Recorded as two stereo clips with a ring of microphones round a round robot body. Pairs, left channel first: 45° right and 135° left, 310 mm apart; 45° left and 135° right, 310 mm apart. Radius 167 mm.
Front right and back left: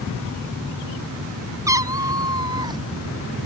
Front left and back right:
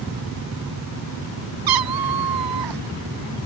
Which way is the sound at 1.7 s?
145° right.